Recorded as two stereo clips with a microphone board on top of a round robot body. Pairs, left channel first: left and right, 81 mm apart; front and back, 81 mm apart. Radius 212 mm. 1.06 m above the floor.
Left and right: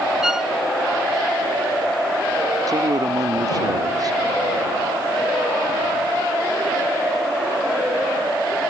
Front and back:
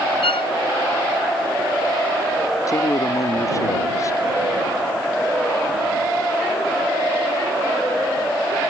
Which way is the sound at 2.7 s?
50° right.